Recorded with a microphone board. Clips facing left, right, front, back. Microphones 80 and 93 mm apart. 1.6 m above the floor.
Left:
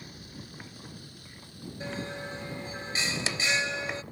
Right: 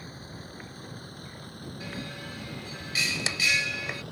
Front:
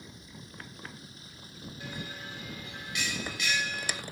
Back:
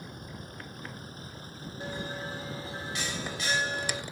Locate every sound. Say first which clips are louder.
0.0 s a vehicle: right 3 dB, back 6 dB; 145° right; by 4.1 s 110° right
1.8 s a bell: left 4 dB, back 6 dB; 140° left